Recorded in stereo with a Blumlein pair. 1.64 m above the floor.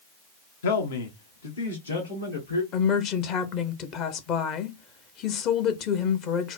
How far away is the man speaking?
About 0.8 m.